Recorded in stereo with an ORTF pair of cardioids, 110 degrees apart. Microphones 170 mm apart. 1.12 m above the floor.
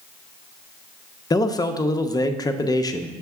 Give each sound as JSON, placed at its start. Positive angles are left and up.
{"t": 1.3, "sound": "a man speaking", "azimuth_deg": 20, "distance_m": 0.6}